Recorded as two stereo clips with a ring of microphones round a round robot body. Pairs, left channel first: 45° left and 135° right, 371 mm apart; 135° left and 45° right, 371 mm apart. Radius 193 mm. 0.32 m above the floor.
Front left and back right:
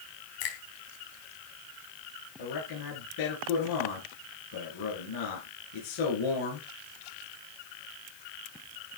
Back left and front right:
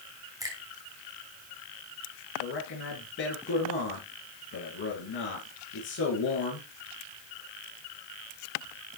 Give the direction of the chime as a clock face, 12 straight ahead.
I don't hear a chime.